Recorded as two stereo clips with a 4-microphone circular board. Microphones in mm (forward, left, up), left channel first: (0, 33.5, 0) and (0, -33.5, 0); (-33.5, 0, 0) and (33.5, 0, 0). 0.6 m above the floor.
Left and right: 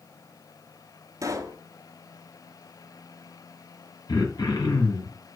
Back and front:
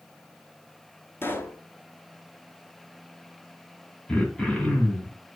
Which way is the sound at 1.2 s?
125° right.